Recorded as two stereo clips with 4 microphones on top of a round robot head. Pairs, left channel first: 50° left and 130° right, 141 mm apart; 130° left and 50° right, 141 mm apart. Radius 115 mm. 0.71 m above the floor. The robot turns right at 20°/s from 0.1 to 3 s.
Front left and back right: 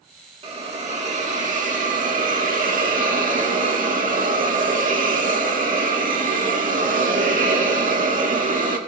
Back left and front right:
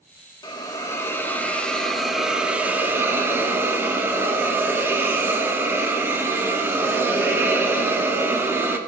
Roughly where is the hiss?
Behind.